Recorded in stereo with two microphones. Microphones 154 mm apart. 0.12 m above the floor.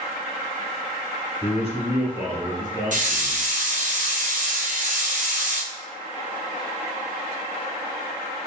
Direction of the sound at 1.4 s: 45° left (ahead or behind).